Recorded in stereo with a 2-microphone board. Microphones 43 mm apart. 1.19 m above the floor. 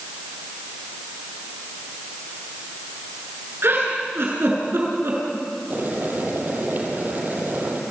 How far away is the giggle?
About 7.5 m.